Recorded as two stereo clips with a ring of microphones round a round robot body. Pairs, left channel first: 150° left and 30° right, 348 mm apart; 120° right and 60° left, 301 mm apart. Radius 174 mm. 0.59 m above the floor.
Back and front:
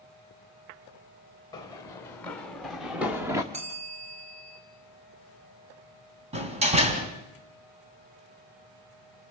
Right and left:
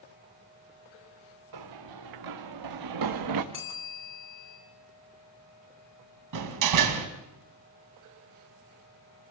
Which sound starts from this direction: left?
Running footsteps, at 1.5 s.